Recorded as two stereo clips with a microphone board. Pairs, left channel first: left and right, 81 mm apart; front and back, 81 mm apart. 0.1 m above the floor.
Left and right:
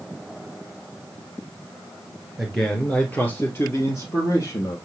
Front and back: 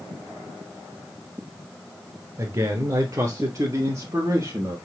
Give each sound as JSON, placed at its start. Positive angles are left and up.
{"t": 2.4, "sound": "a man speaking", "azimuth_deg": -175, "distance_m": 1.3}